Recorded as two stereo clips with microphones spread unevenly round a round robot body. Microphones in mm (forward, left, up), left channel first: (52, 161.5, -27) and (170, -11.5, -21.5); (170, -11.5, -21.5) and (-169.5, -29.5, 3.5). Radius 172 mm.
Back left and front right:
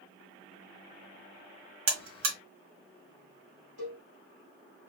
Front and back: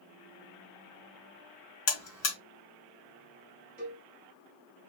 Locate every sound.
1.9 s a buzzer: 45° right, 1.6 m
3.8 s a cowbell: 110° right, 2 m